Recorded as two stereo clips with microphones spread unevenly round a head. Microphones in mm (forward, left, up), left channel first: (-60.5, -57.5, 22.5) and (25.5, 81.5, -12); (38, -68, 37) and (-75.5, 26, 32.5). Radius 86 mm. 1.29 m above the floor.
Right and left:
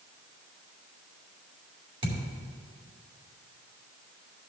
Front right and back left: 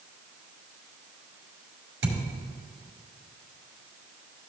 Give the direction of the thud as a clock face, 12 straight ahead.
8 o'clock.